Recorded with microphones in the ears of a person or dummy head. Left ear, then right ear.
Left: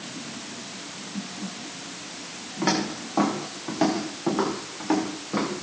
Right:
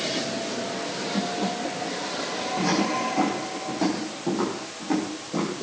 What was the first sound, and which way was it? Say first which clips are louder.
Footsteps: even; 75° left (ahead or behind).